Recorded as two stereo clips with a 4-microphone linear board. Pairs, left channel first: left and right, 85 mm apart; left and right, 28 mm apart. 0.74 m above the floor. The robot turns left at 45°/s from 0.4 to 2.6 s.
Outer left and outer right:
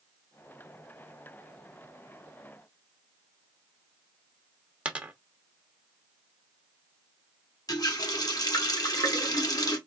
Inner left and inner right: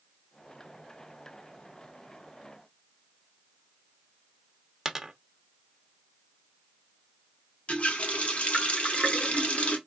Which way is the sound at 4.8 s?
15° right (ahead or behind).